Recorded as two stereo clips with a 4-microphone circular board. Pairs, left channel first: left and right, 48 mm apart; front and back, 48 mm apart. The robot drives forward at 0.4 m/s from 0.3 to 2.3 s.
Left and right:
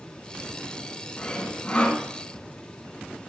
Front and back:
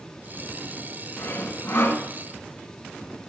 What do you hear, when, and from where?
1.2 s sawing: 25° left, 2.5 m; by 2.0 s 30° left, 2.5 m